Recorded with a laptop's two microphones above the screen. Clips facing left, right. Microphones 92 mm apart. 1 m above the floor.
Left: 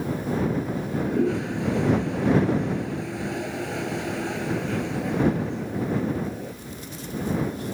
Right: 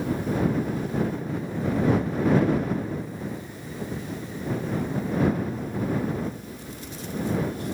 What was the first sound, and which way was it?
A toilet flushing, 75° left (ahead or behind).